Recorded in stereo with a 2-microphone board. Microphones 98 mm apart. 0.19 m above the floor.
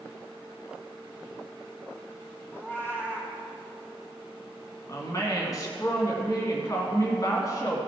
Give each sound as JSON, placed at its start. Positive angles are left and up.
{"t": 2.5, "sound": "a cat meowing", "side_deg": 25, "distance_m": 2.5}
{"t": 4.9, "sound": "a woman speaking", "side_deg": 35, "distance_m": 1.8}